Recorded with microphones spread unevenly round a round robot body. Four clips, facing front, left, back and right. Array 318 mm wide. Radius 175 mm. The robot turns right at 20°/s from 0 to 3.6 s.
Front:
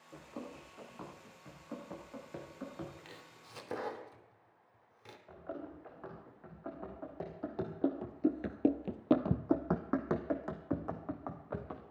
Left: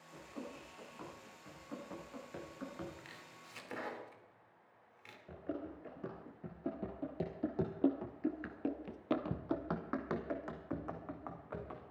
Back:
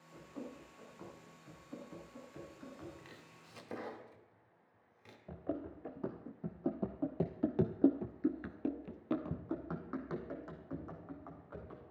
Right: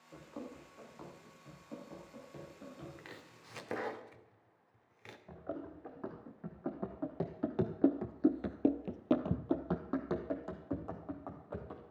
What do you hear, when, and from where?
0.1 s running footsteps: 30° right, 8.5 m; by 2.9 s 25° left, 6 m
3.0 s chopping: 50° right, 2.0 m; by 5.2 s 40° right, 2.0 m
5.3 s running footsteps: straight behind, 3.5 m; by 11.8 s 10° right, 4 m